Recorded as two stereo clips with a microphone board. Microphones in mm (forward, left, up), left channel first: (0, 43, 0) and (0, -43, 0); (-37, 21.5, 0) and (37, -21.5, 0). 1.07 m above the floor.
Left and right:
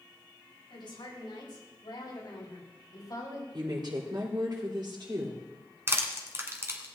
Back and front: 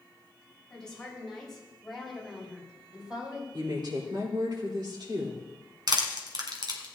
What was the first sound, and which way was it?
A woman speaking, 70° left.